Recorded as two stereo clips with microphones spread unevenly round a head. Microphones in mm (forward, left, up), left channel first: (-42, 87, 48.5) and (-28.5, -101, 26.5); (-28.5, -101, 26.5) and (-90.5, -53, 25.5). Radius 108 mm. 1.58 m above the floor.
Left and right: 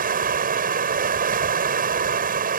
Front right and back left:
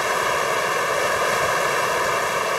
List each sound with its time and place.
0.0 s running water: 130° right